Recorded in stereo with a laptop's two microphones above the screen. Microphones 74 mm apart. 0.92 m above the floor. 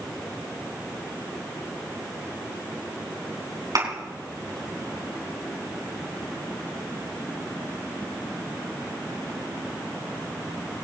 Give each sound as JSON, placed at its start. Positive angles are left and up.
{"t": 3.8, "sound": "a thud", "side_deg": -60, "distance_m": 4.0}